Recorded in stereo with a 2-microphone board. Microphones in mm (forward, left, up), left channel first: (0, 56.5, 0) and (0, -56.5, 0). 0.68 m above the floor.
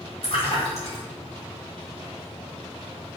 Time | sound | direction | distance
0.2 | a splash | 65° left (ahead or behind) | 1.4 m